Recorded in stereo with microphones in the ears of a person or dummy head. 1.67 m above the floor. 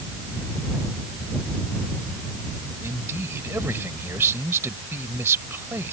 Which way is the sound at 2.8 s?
10° right (ahead or behind).